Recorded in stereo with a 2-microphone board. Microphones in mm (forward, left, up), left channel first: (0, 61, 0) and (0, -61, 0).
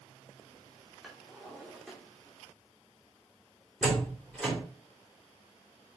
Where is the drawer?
Centre (ahead or behind), 3 m.